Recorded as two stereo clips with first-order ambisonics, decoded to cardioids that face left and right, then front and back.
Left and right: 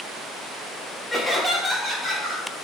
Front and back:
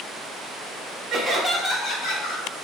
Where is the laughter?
160° left, 0.6 m; by 2.5 s 5° left, 0.9 m.